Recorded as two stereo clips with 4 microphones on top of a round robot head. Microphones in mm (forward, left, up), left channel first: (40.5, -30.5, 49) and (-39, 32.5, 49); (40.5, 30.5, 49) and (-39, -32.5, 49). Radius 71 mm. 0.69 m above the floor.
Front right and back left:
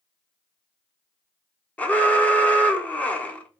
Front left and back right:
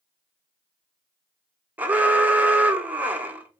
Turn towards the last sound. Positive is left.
turn(degrees=-90)